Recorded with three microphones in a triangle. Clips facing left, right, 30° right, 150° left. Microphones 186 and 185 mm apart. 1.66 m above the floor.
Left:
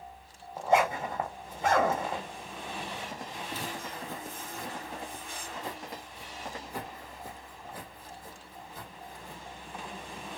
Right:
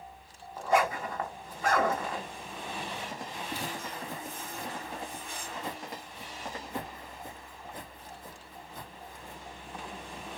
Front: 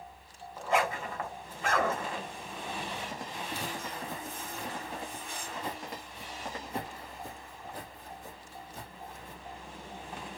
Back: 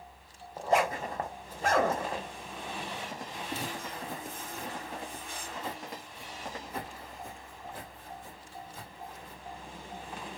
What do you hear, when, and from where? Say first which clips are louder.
0.6 s a zipper: left 2 dB, back 2 dB; 140° left, 1.0 m
3.5 s footsteps: right 1 dB, back 2 dB; 160° right, 2.0 m; by 9.4 s 30° right, 3 m